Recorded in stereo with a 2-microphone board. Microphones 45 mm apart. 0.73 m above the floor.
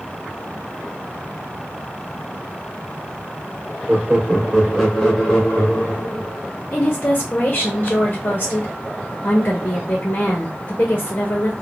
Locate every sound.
3.9 s laughter: 25° right (ahead or behind), 0.9 m; by 6.4 s 25° left (ahead or behind), 1.5 m
6.7 s a woman speaking: 35° left (ahead or behind), 0.8 m